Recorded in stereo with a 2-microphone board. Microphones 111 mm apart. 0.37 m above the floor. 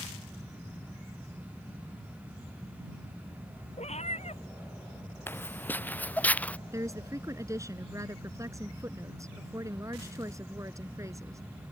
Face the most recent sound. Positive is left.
turn(degrees=-30)  # may be behind; listen again after turning